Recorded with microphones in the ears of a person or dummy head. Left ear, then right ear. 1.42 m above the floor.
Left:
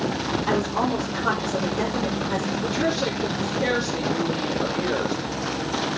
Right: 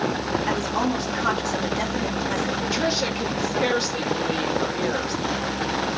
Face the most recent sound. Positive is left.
turn(degrees=-80)